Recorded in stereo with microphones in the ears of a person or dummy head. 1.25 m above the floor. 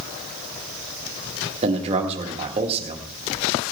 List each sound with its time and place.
1.6 s a man speaking: 30° right (ahead or behind), 1.7 m